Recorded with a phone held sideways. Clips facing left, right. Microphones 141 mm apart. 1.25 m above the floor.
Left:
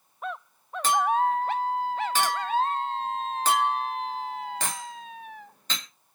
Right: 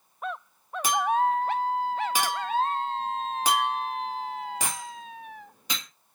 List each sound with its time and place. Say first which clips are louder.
0.8 s a clink: left 1 dB; 10° right (ahead or behind), 1.5 m